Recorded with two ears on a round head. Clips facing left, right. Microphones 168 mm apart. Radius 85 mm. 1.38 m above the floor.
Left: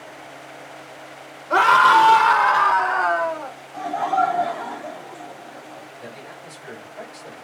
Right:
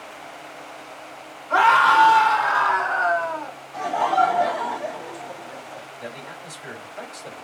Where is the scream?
40° left (ahead or behind), 0.9 m; by 3.5 s 80° left, 1.3 m.